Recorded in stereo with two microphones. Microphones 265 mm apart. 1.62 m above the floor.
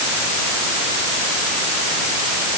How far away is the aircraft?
I don't hear an aircraft.